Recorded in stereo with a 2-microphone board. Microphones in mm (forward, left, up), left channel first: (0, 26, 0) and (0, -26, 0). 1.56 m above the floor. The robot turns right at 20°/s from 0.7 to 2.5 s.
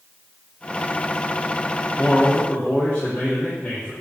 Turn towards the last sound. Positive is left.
turn(degrees=20)  # may be behind; listen again after turning